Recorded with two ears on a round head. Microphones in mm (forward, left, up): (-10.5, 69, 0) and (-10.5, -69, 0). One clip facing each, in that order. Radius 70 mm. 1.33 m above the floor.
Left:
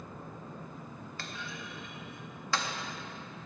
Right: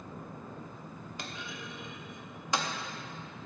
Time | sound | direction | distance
1.2 | a clunk | 15° right (ahead or behind) | 0.8 m